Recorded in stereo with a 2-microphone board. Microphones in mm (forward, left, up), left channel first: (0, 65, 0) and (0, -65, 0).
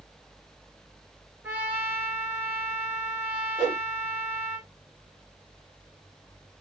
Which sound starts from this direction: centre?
A trumpet, at 1.4 s.